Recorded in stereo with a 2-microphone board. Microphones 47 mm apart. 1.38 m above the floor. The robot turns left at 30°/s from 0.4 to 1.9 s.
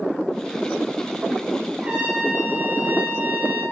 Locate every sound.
1.8 s a trumpet: 25° right (ahead or behind), 6 m; by 3.6 s 20° right (ahead or behind), 6 m